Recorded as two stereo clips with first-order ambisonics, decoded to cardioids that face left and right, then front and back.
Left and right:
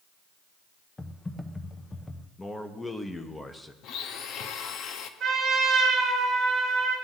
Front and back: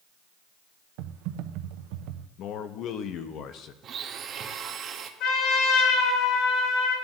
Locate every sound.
1.0 s typing on a keyboard: 170° left, 0.6 m
2.4 s a man speaking: 10° left, 0.8 m
3.8 s a blender: 125° left, 0.8 m
5.2 s a trumpet: 25° right, 4.5 m